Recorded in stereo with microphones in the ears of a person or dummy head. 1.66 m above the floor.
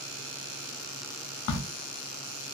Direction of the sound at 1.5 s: 75° left (ahead or behind).